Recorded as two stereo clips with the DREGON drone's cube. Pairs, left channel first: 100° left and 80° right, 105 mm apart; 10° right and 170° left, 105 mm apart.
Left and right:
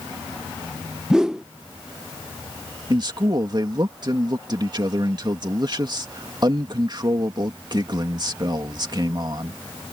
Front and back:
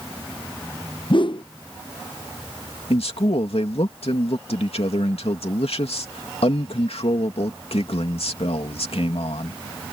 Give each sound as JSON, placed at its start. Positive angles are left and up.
{"t": 1.1, "sound": "a whoosh", "azimuth_deg": 5}
{"t": 2.9, "sound": "a man speaking", "azimuth_deg": -30}